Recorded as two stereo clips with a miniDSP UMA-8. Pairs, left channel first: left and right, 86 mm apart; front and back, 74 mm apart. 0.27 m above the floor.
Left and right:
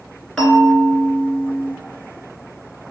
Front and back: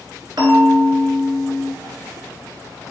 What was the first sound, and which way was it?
A bell, 170° left.